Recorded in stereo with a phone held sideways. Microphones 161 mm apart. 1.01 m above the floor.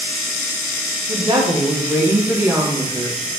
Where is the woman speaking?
30° right (ahead or behind), 0.8 m; by 3.3 s 5° right (ahead or behind), 1.6 m.